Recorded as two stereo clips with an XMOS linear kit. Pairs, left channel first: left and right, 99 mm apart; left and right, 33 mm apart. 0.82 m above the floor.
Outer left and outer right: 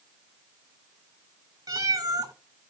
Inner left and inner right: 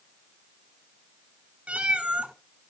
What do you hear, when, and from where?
1.7 s a cat meowing: 35° right (ahead or behind), 1.3 m